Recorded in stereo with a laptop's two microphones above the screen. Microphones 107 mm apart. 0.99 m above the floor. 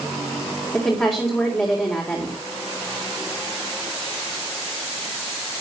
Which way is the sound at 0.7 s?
15° left (ahead or behind).